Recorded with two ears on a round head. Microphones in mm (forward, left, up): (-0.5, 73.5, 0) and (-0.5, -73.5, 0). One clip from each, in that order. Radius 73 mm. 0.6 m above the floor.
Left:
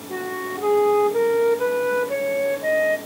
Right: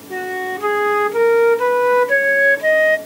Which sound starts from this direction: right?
A flute, at 0.1 s.